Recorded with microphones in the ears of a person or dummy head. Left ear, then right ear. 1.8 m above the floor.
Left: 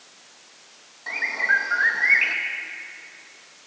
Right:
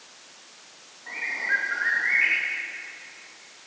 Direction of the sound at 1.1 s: 75° left (ahead or behind).